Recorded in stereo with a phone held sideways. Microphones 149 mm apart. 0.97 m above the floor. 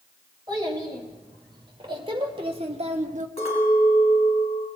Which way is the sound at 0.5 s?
30° right (ahead or behind).